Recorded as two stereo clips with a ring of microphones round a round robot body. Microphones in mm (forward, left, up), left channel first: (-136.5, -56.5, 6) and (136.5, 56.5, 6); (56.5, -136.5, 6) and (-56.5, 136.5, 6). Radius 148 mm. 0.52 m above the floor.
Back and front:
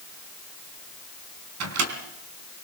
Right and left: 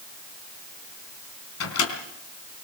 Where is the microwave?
20° right, 3.5 m.